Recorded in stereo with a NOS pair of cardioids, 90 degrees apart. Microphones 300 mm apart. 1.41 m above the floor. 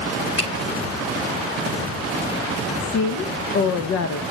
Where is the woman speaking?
70° left, 1.2 m.